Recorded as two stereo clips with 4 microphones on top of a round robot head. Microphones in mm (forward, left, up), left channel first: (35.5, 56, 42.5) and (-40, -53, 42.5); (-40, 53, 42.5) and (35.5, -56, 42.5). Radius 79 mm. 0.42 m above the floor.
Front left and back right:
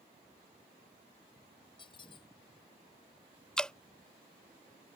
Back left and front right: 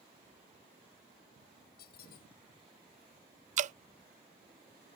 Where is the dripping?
30° right.